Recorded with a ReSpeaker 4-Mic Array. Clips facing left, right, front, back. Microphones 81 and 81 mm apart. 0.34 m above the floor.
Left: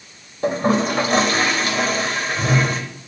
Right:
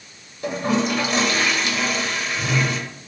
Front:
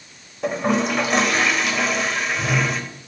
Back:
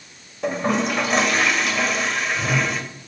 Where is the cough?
I don't hear a cough.